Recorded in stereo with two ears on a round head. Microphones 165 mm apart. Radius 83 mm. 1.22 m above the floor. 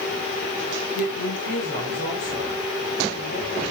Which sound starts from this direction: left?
A woman speaking, at 0.9 s.